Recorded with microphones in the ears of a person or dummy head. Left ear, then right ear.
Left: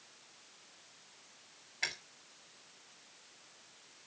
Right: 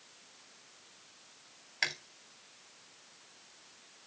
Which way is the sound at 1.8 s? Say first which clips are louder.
Right 4 dB; 65° right (ahead or behind).